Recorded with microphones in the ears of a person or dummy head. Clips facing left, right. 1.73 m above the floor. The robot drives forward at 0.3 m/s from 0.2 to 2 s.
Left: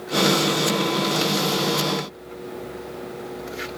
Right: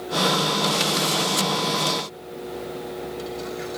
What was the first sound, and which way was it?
Only background noise.